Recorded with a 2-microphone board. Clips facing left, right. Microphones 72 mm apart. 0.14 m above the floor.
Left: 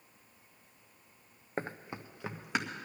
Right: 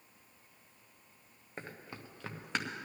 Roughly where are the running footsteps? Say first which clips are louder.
Left 8 dB; left.